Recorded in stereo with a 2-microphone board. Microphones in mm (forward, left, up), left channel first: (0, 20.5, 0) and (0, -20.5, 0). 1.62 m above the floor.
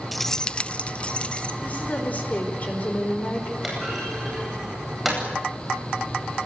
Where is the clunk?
5° right (ahead or behind), 9.5 m.